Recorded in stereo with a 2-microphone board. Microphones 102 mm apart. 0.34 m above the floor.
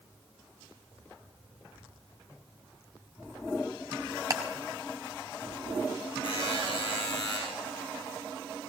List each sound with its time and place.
4.3 s ticking: 35° right (ahead or behind), 2 m
6.2 s a buzzer: 55° left (ahead or behind), 7.5 m